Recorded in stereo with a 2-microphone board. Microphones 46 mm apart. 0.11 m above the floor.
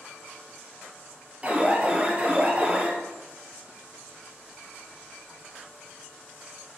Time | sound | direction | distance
1.4 | an alarm | 30° right (ahead or behind) | 2.5 m